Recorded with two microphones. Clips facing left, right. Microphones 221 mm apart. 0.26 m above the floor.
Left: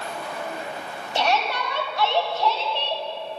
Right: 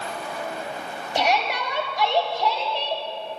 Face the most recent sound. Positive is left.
turn(degrees=-15)  # may be behind; listen again after turning